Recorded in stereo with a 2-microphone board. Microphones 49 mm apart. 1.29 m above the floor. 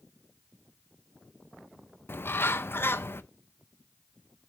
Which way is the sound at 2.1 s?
50° left (ahead or behind).